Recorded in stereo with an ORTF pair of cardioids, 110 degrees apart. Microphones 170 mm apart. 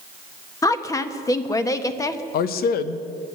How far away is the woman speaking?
About 1.3 m.